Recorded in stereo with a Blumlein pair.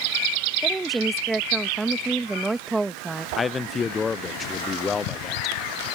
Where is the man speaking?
15° left.